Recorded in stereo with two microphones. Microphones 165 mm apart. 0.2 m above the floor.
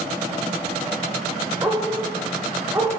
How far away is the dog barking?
About 8 m.